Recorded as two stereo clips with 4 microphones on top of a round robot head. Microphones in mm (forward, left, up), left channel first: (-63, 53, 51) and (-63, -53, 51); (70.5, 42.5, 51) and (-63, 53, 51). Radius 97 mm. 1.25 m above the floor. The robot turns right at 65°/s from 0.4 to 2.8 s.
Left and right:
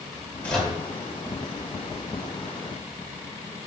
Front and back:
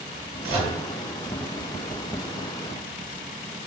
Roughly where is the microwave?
Behind.